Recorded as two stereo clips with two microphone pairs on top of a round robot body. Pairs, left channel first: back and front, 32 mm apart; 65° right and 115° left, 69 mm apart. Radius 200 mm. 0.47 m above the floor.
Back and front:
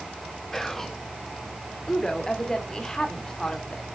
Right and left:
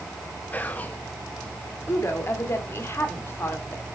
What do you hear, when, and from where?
0.5 s whispering: 105° right, 1.1 m
1.9 s a woman speaking: 115° right, 2.5 m